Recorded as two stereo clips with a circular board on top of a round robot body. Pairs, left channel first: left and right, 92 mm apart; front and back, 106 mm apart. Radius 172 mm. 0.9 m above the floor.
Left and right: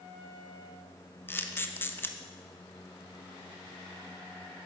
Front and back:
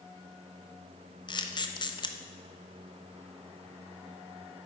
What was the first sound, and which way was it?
A camera shutter, 30° left.